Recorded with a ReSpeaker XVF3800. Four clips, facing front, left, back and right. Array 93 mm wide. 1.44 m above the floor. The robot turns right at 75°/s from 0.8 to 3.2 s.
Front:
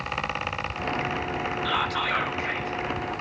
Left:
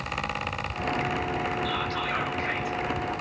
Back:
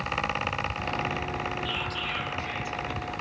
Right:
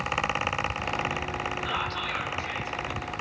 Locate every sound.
1.6 s whispering: 20° right, 0.6 m; by 2.8 s 65° left, 0.6 m